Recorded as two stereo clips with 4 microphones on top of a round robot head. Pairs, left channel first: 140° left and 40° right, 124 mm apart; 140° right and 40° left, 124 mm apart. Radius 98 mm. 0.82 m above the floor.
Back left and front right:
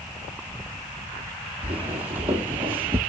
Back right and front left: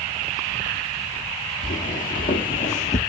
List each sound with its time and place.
1.6 s footsteps: 120° right, 2 m; by 3.0 s 110° right, 1.2 m